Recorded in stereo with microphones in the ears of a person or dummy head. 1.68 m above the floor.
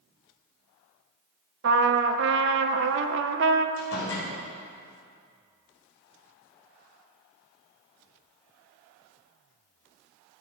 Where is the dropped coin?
I don't hear a dropped coin.